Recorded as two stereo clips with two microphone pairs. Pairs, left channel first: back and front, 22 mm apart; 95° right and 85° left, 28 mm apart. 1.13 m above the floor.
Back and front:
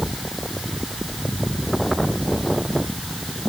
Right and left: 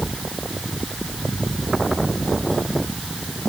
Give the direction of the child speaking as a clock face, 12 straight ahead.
No child speaking in this recording.